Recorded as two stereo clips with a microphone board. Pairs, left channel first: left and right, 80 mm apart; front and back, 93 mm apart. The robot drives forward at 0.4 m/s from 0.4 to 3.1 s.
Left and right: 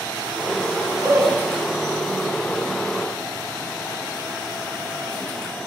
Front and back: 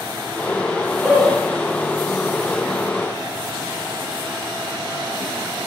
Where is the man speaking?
75° right, 1.3 m; by 1.4 s 85° right, 1.3 m.